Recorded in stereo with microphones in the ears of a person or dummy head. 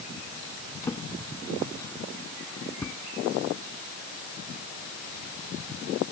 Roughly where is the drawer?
Centre.